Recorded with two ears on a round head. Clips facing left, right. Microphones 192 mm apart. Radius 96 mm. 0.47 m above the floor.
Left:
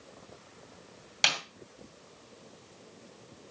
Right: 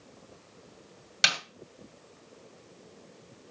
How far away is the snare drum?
About 2 m.